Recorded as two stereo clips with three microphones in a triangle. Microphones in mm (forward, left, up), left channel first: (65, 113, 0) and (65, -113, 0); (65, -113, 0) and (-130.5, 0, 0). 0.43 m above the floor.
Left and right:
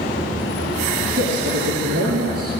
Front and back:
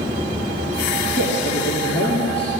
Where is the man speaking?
75° right, 6.5 m.